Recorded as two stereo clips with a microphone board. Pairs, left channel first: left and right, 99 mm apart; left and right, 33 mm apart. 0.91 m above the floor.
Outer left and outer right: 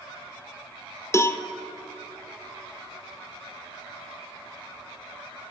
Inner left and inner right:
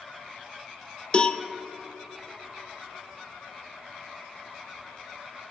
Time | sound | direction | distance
1.1 | a cowbell | 30° left (ahead or behind) | 0.5 m